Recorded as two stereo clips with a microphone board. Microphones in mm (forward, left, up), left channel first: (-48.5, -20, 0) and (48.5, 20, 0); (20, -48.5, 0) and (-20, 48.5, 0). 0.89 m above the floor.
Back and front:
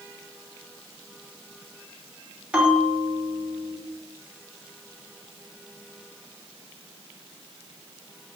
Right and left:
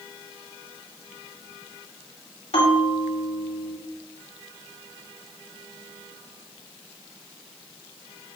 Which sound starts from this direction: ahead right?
A bell, at 2.5 s.